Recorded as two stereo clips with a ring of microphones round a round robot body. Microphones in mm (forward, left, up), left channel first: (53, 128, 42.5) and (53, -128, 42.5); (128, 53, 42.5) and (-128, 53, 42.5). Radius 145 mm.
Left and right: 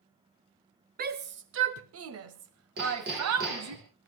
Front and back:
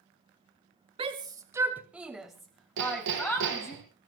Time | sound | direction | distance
1.0 | a shout | 120° right | 1.1 m
2.8 | hammering | 150° right | 5 m